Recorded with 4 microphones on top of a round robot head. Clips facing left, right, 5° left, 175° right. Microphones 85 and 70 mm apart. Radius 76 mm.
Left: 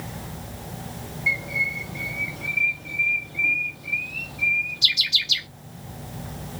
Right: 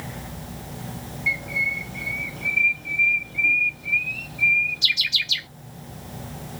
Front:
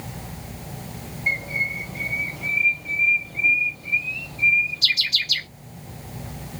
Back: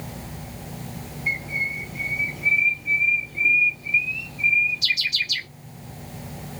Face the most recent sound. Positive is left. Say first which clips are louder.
# even, front 2 dB
turn(degrees=15)